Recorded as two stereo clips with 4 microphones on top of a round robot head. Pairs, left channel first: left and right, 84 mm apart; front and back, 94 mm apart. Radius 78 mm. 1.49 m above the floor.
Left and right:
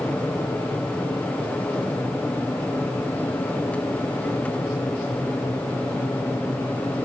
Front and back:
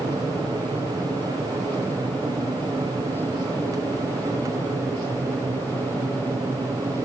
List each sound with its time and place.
0.0 s an aircraft: 160° left; by 7.0 s 155° left